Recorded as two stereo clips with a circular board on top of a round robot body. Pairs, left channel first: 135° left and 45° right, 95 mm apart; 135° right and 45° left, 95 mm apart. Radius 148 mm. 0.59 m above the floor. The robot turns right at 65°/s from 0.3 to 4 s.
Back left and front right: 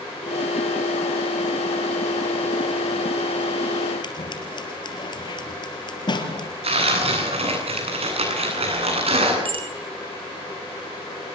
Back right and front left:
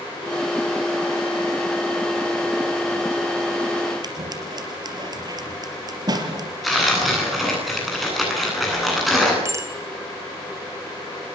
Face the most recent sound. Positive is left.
turn(degrees=-15)